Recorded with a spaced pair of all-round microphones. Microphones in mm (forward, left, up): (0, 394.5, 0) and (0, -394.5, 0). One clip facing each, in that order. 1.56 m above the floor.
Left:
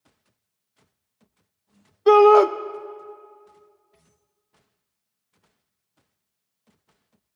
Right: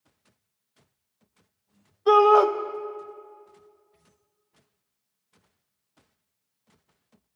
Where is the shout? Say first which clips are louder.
Left 5 dB; 60° left (ahead or behind), 0.6 m.